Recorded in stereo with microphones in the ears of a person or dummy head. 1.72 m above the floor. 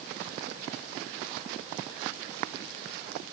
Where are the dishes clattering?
I don't hear dishes clattering.